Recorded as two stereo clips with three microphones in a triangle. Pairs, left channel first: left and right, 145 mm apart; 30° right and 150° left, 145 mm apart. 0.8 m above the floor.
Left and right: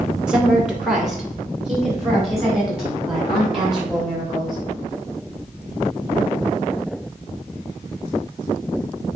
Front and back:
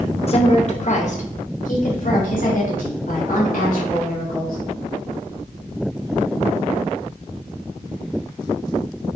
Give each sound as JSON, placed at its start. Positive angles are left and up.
{"t": 0.3, "sound": "a woman speaking", "azimuth_deg": -5, "distance_m": 0.8}